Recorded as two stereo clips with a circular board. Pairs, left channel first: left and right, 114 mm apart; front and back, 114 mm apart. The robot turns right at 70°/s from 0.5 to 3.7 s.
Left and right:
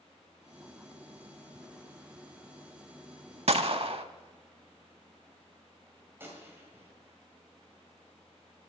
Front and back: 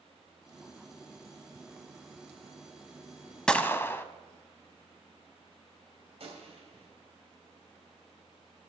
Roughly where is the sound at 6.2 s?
Behind.